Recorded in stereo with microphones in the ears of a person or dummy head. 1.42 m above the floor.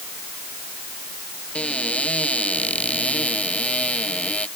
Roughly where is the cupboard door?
Centre.